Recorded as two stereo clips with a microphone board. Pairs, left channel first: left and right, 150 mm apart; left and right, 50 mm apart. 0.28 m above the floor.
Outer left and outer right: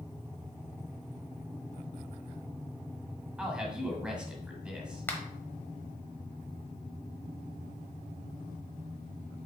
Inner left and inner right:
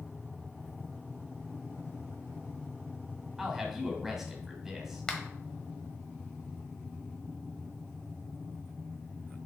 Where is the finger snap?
15° left (ahead or behind), 1.2 m.